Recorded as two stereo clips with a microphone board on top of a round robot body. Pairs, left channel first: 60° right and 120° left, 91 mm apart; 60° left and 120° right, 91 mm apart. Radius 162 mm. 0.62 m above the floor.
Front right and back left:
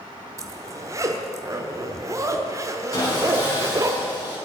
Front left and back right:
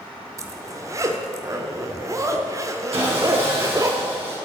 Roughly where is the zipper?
Behind.